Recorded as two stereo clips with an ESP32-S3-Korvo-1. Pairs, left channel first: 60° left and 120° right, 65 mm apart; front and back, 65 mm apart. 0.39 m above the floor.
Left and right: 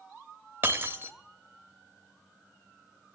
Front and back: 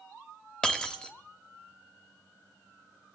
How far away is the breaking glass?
About 0.8 m.